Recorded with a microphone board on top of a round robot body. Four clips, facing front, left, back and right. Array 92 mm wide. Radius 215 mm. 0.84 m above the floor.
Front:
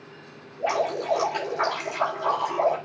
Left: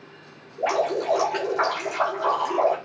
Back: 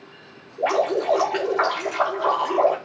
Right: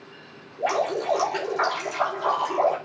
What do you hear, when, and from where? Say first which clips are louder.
0.6 s dripping: left 1 dB, back 4 dB; 155° left, 4.5 m